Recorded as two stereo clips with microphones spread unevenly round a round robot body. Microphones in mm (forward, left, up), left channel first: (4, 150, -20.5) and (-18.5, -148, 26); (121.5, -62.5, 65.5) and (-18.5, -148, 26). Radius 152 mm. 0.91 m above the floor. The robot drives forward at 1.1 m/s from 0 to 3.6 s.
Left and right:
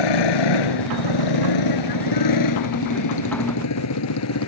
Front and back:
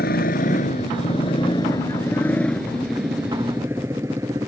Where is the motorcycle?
90° left; by 4.5 s 130° left.